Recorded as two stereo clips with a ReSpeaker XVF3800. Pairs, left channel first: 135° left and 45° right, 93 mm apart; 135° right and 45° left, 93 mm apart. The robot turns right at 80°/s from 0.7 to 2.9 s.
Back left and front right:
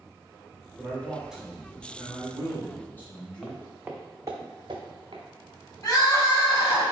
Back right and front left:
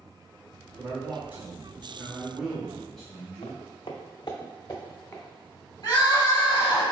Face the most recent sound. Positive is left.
turn(degrees=-175)